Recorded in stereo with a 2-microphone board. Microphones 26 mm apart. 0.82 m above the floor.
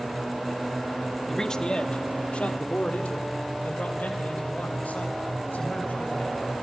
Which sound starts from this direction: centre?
A man speaking, at 1.3 s.